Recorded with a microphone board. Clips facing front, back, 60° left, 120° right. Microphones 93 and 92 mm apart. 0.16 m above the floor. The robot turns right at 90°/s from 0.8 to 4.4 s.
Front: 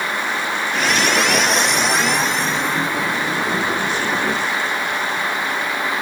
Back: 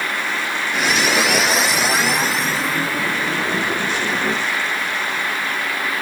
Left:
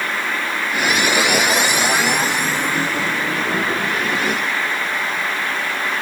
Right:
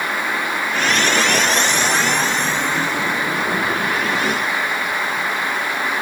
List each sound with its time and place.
Only background noise.